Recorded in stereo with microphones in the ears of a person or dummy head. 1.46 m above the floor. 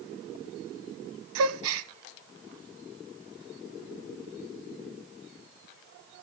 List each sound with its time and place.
1.4 s a gasp: 85° right, 0.9 m